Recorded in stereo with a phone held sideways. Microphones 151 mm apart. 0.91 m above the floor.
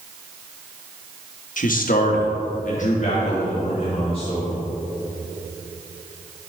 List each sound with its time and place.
1.6 s a man speaking: 60° left (ahead or behind), 1.0 m; by 4.6 s 35° left (ahead or behind), 3.5 m